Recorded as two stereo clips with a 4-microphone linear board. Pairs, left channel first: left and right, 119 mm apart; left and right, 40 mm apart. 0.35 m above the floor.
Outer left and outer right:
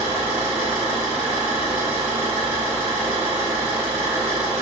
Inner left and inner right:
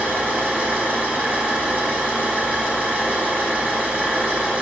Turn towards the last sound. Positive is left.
turn(degrees=-50)  # may be behind; listen again after turning